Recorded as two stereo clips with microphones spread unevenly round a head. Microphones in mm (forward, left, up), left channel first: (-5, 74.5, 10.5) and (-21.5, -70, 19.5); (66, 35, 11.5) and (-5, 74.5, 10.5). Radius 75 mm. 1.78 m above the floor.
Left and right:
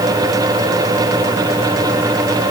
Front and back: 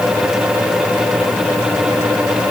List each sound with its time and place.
Only background noise.